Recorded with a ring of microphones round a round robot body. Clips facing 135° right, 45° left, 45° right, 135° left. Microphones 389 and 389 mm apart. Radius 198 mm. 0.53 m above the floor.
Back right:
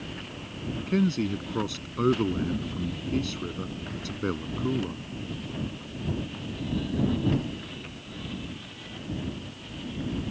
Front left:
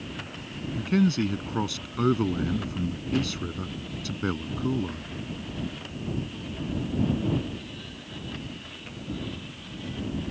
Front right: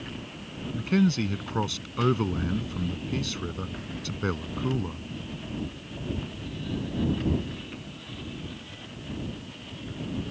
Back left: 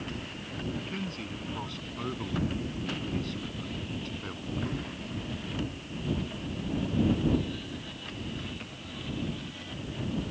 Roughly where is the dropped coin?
I don't hear a dropped coin.